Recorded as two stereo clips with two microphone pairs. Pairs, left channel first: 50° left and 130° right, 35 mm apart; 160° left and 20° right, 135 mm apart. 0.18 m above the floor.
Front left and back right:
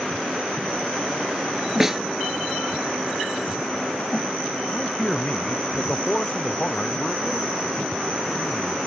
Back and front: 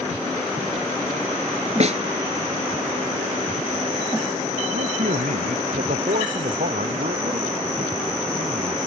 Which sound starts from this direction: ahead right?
A snare drum, at 1.8 s.